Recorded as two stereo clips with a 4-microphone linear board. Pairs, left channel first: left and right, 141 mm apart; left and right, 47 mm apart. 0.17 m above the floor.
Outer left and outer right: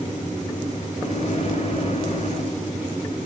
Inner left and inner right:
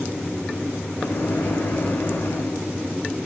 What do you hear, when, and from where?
1.0 s a microwave: 50° left (ahead or behind), 1.6 m